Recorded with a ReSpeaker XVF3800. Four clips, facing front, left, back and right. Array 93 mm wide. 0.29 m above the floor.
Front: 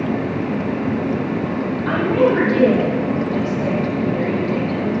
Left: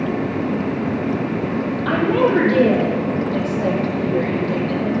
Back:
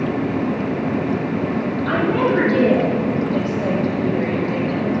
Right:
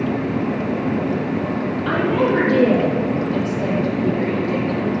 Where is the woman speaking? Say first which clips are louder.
Left 2 dB, front 3 dB; 75° left, 8.5 m; by 4.9 s 95° left, 10 m.